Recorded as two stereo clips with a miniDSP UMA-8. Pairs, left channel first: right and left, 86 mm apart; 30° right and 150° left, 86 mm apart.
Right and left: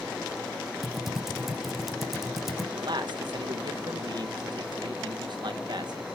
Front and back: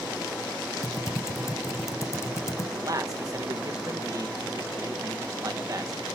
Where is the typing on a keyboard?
Straight ahead, 0.5 m.